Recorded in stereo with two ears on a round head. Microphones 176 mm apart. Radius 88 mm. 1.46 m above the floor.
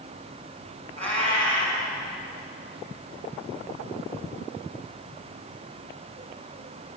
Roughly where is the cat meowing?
Right.